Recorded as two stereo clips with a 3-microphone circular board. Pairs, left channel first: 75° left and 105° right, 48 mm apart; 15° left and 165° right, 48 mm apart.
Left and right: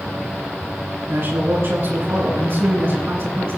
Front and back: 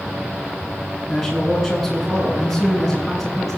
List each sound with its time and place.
1.1 s a man speaking: 70° right, 9 m